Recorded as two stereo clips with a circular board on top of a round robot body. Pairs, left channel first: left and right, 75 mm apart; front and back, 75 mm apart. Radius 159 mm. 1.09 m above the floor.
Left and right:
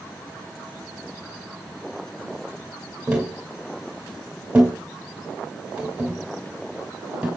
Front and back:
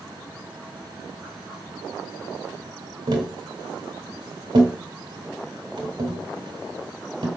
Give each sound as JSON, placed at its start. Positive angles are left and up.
{"t": 3.1, "sound": "tapping", "azimuth_deg": -165, "distance_m": 1.9}